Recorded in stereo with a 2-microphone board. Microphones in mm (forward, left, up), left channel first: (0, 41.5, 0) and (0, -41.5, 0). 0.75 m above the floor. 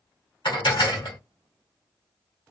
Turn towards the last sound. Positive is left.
turn(degrees=70)  # may be behind; listen again after turning